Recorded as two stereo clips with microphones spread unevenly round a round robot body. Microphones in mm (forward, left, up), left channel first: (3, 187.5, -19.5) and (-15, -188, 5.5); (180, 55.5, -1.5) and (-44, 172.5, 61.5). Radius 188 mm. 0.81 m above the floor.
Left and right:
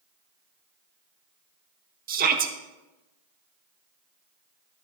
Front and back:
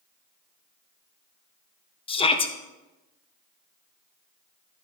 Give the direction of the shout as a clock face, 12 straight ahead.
1 o'clock.